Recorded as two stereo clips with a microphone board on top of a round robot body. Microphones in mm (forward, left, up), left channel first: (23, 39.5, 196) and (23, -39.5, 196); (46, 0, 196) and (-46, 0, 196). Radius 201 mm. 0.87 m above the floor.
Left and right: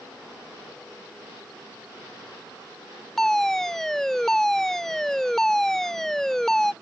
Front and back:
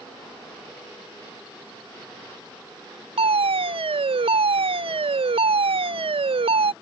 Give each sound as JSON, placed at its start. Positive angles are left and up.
{"t": 3.2, "sound": "a fire alarm", "azimuth_deg": 175}